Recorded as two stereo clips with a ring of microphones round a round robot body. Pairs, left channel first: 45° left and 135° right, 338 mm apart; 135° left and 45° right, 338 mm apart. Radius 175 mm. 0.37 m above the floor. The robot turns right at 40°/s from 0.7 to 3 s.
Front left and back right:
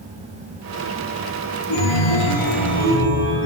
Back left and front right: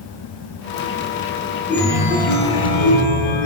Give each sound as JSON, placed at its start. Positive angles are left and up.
{"t": 1.7, "sound": "a chime", "azimuth_deg": 50, "distance_m": 4.5}